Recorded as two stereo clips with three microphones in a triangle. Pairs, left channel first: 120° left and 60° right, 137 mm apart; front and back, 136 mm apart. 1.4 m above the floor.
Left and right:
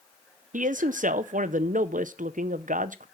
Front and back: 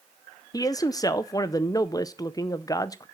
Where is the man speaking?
65° right, 0.5 m.